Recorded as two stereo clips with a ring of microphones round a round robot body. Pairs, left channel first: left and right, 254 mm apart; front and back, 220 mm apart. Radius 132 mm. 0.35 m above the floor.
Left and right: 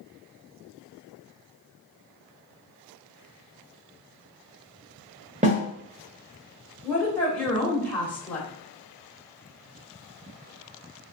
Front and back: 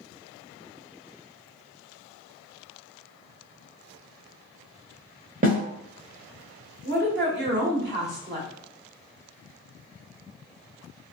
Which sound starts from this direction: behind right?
A snare drum, at 5.4 s.